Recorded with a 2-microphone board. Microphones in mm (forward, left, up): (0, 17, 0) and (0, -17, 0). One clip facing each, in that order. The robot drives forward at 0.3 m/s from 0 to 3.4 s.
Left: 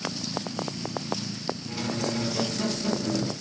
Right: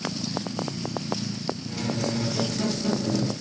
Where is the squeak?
15° left (ahead or behind), 1.1 m; by 3.3 s 10° left (ahead or behind), 1.6 m.